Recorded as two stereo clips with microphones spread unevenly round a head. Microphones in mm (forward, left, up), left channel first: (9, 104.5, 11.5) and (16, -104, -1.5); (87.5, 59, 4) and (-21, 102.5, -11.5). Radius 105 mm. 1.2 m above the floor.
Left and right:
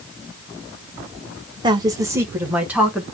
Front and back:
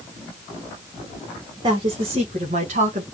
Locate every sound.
1.6 s a woman speaking: 155° right, 1.0 m; by 3.0 s 175° right, 1.6 m